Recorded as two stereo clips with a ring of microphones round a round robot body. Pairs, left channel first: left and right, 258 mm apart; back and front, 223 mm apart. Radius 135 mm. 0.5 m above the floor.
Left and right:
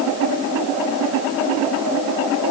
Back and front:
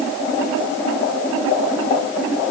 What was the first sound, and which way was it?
Only background noise.